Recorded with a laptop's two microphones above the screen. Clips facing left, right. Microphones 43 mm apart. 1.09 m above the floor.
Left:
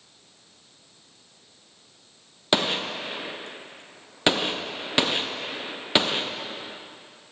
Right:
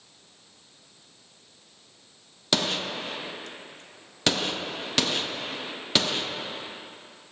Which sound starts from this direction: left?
A gunshot, at 2.5 s.